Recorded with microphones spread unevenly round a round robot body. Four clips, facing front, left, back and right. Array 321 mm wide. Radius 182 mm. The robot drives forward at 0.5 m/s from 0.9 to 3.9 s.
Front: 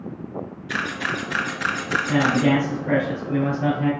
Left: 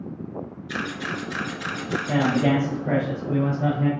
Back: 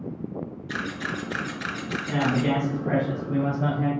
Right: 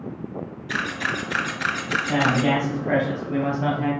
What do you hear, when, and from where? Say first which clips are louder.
0.7 s a camera shutter: right 3 dB, front 5 dB; 30° right, 1.6 m; by 2.5 s 55° right, 1.0 m
2.1 s a man speaking: even, front 5 dB; 105° left, 2 m; by 3.9 s 130° left, 2.5 m